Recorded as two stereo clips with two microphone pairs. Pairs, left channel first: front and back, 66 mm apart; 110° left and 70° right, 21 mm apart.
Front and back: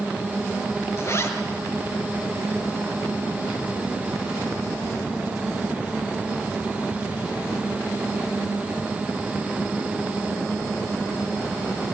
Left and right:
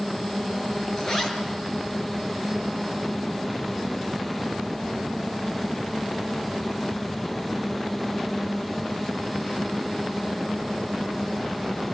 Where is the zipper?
40° left, 5 m.